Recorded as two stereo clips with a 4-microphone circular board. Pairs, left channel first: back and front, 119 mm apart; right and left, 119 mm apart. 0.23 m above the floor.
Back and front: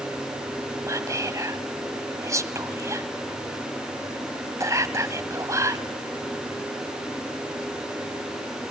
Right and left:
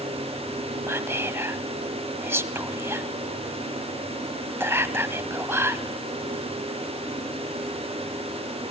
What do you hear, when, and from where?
0.9 s whispering: 35° left, 1.1 m